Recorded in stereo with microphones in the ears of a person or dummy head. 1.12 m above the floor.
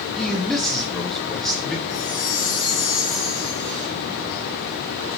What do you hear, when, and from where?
0.2 s a man speaking: 5° left (ahead or behind), 1.7 m
1.9 s a chime: 35° left (ahead or behind), 3.5 m